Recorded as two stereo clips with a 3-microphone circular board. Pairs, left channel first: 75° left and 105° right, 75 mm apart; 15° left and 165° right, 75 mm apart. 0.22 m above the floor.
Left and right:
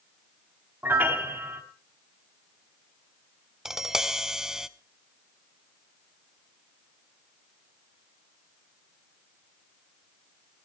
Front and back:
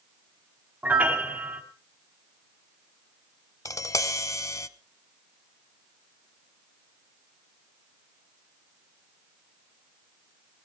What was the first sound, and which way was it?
A piano, 120° right.